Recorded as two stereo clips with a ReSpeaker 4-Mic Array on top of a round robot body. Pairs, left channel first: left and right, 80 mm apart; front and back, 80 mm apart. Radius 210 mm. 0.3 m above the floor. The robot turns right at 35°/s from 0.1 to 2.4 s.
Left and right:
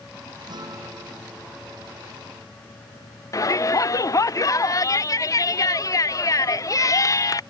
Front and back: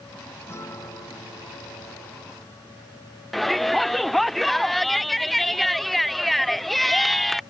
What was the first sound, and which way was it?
A guitar, 60° right.